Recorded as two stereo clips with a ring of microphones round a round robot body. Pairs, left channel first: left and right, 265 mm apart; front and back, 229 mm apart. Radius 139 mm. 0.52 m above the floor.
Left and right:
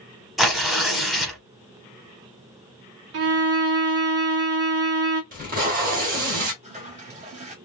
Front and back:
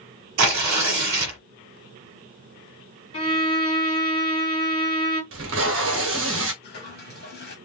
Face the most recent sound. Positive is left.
turn(degrees=-30)